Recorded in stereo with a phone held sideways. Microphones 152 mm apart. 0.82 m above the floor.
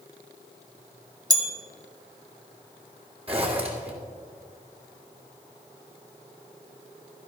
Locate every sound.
1.3 s a bell: 25° right (ahead or behind), 1.6 m
3.3 s a zipper: 40° right (ahead or behind), 1.8 m